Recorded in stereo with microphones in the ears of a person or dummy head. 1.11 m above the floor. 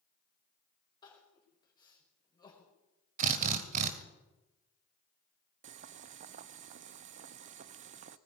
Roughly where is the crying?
Left.